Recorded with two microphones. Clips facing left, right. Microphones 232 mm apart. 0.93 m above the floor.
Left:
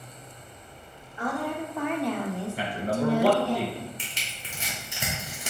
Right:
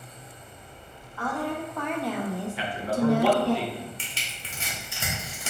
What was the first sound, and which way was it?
A woman speaking, 15° left (ahead or behind).